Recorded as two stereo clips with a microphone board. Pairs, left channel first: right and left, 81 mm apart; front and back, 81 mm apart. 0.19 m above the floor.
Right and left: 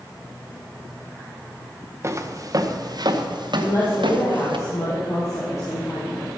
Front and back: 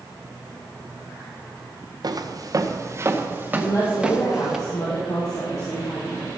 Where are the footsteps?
145° left, 1.8 m; by 4.6 s 95° left, 2.5 m.